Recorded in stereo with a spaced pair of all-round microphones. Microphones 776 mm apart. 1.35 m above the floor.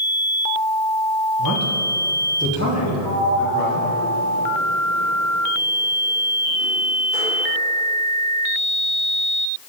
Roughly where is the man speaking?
Left.